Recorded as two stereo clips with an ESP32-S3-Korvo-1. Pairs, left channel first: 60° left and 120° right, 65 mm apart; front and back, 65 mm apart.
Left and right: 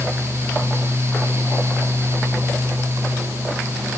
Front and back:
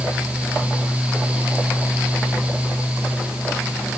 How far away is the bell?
I don't hear a bell.